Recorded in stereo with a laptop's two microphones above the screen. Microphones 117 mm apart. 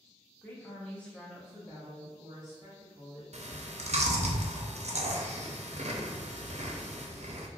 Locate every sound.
0.4 s a woman speaking: 15° left (ahead or behind), 0.8 m; by 3.2 s 5° right (ahead or behind), 1.8 m
3.3 s chewing: 70° right (ahead or behind), 0.5 m